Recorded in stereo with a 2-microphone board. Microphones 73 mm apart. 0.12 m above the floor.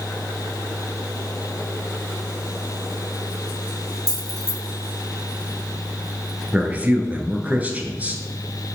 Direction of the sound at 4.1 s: 55° right (ahead or behind).